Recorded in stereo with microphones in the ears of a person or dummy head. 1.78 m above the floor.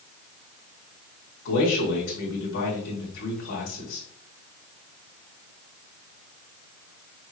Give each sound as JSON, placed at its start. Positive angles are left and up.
{"t": 1.4, "sound": "a man speaking", "side_deg": 70, "distance_m": 3.0}